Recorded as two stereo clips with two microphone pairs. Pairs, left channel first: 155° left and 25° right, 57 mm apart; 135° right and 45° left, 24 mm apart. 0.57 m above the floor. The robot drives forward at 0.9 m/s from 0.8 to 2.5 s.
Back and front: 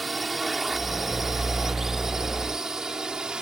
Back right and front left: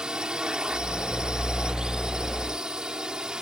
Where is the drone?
65° left; by 3.4 s 40° left.